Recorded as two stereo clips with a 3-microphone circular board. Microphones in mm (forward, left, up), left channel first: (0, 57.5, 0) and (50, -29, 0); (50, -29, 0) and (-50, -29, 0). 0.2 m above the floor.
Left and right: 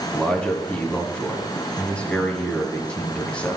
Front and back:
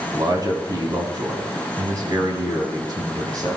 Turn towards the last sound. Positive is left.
turn(degrees=-165)